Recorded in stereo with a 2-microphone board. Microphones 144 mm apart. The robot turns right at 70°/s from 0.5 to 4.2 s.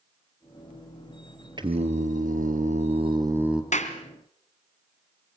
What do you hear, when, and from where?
1.6 s singing: 145° right, 2 m; by 3.6 s straight ahead, 2 m
3.7 s a clap: 65° left (ahead or behind), 2 m; by 4.0 s 55° left (ahead or behind), 2 m